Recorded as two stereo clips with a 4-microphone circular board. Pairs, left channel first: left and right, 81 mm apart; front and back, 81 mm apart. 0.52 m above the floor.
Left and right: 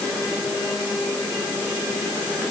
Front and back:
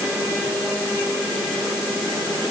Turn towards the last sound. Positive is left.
No sound to turn to.